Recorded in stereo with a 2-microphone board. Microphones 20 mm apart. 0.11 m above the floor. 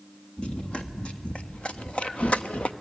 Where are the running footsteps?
50° left (ahead or behind), 2 m; by 2.7 s 75° left (ahead or behind), 0.8 m.